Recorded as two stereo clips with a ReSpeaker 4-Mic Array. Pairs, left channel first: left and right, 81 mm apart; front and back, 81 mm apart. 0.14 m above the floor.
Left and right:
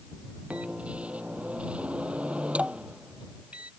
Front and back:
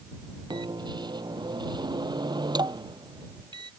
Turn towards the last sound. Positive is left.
turn(degrees=-165)